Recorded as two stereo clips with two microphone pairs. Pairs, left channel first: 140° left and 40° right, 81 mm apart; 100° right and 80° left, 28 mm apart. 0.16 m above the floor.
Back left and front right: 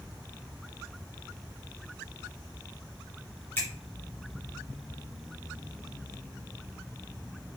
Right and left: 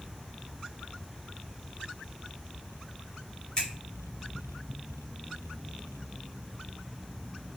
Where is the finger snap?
170° right, 1.8 m.